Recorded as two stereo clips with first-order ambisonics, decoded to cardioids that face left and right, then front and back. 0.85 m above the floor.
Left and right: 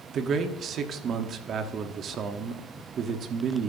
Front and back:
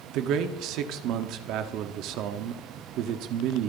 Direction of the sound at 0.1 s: 145° right.